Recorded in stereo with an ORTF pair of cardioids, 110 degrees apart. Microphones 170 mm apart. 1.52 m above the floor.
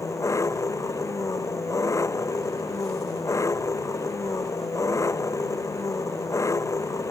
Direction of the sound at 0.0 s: 15° left.